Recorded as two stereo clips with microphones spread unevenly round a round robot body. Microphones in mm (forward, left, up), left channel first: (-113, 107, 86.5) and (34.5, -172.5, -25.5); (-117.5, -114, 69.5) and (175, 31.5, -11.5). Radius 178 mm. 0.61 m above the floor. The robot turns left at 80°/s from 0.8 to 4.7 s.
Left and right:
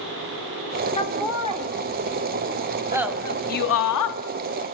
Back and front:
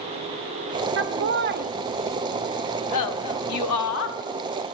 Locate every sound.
1.0 s laughter: 35° left, 0.9 m; by 4.2 s 135° left, 0.9 m